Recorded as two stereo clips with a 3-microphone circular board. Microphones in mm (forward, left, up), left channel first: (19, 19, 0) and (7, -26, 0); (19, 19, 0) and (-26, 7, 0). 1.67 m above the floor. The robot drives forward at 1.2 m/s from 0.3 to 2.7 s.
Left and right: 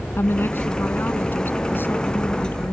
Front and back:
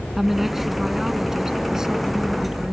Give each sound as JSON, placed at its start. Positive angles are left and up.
{"t": 0.2, "sound": "a woman speaking", "azimuth_deg": 110}